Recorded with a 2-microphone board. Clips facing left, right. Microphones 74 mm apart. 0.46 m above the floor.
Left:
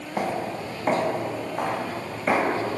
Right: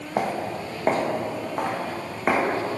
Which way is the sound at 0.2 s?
45° right (ahead or behind).